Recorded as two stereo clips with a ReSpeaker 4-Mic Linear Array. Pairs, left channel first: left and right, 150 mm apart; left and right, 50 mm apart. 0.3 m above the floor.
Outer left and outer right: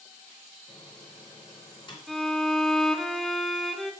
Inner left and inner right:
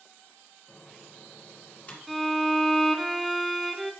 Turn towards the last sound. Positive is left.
turn(degrees=0)  # may be behind; listen again after turning